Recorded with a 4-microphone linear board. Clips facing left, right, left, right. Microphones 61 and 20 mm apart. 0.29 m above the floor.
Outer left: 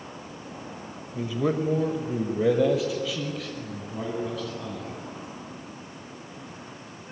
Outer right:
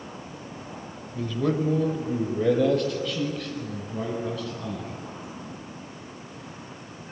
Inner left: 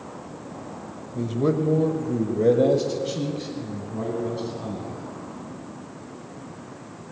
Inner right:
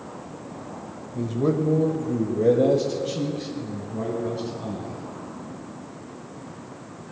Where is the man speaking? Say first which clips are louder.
Even, even; 15° left (ahead or behind), 1.0 m; by 5.0 s centre (ahead or behind), 2.5 m.